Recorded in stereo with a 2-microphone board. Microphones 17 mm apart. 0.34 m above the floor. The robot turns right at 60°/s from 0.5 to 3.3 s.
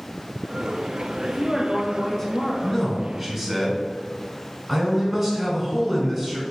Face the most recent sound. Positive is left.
turn(degrees=-170)